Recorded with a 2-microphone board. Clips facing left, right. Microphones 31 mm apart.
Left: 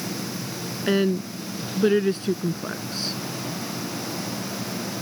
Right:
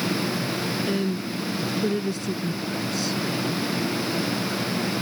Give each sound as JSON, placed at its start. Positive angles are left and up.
{"t": 0.9, "sound": "a woman speaking", "side_deg": 40}